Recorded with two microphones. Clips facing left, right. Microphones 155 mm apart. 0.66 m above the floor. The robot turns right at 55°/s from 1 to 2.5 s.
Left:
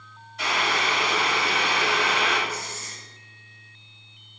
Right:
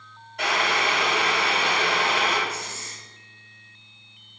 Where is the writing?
65° right (ahead or behind), 3 m.